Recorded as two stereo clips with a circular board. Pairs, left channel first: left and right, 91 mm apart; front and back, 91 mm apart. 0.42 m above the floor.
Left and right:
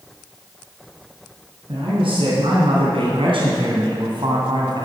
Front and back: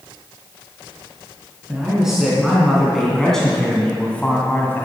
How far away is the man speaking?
About 4 m.